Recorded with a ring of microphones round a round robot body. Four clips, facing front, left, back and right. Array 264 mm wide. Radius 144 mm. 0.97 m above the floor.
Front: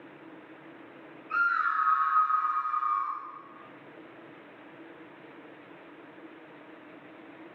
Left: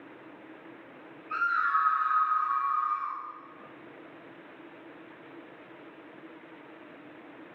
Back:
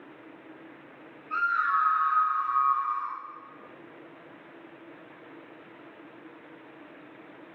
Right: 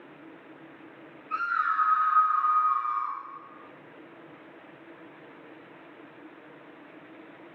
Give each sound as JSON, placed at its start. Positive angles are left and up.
{"t": 1.3, "sound": "a scream", "azimuth_deg": 25, "distance_m": 1.5}